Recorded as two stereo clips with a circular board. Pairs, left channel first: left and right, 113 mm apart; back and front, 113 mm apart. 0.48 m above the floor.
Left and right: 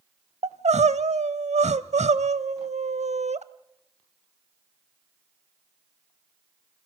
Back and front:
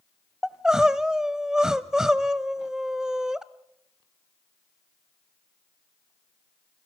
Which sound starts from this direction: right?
Crying, at 0.4 s.